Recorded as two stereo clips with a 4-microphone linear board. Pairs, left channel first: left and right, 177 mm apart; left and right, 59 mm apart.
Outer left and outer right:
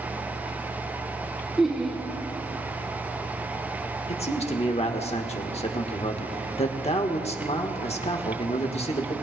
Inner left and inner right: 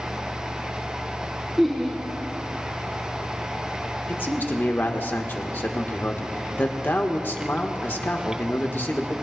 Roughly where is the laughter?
Centre.